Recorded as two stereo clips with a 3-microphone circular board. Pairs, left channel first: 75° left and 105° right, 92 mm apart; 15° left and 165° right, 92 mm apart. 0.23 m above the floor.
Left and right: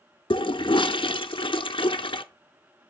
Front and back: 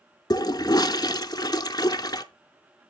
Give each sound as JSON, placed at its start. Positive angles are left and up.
{"t": 0.3, "sound": "a toilet flushing", "azimuth_deg": 55, "distance_m": 0.5}